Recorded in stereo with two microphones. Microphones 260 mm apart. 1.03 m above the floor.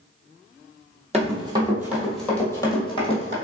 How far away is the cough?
I don't hear a cough.